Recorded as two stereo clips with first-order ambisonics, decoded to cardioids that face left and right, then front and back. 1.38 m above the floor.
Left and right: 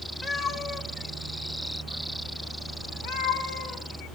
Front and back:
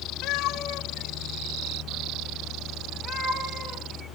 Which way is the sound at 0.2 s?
30° left.